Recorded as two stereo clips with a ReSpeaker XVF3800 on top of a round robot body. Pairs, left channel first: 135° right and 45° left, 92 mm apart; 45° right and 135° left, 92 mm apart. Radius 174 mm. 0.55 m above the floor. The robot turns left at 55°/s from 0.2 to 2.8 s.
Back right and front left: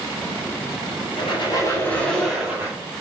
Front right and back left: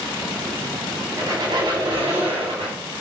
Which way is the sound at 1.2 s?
165° right.